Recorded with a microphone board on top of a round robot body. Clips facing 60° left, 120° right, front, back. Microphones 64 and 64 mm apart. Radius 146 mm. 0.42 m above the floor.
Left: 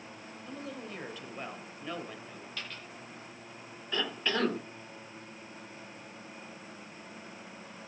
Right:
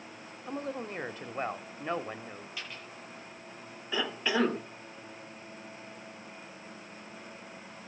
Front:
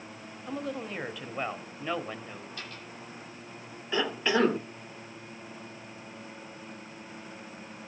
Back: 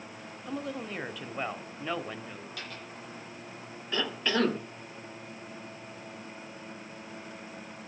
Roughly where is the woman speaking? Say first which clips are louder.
Right 6 dB, front 1 dB; right.